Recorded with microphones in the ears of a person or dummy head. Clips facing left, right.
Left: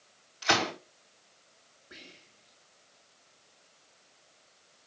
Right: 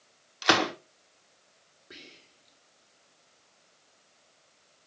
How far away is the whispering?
About 3 m.